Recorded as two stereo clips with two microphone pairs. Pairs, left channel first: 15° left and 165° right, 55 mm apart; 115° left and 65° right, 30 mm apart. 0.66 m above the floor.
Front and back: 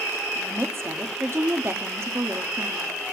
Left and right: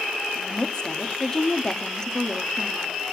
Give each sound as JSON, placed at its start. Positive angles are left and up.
{"t": 0.3, "sound": "a woman speaking", "azimuth_deg": 180, "distance_m": 1.3}